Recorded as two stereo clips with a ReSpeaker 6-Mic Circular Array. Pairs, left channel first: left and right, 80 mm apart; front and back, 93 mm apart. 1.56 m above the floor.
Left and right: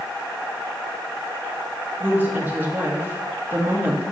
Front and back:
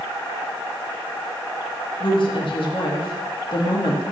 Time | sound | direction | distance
2.0 | a woman speaking | 25° right | 2 m